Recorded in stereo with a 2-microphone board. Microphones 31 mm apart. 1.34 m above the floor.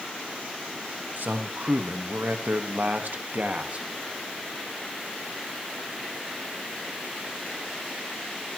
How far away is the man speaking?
About 2 m.